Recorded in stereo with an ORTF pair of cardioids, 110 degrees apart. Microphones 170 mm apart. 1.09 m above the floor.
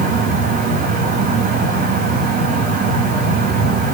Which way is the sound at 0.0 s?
60° right.